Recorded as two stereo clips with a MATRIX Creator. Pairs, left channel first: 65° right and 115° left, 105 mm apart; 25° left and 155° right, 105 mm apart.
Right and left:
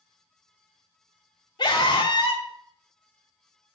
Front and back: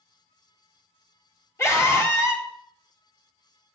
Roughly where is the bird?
I don't hear a bird.